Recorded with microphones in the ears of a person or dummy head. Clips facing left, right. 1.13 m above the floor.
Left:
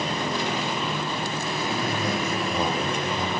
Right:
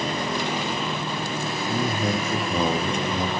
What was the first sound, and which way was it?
A man speaking, 65° right (ahead or behind).